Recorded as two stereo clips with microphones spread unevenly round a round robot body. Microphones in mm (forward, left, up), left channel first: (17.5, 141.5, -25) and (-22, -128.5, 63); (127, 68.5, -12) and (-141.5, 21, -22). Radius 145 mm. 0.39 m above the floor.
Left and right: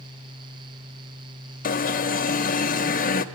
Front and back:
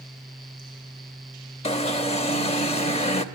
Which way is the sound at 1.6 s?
75° left.